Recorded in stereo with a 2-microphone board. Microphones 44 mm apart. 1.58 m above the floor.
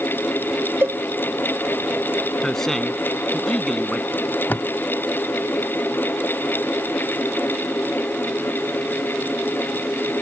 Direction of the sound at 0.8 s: 65° right (ahead or behind).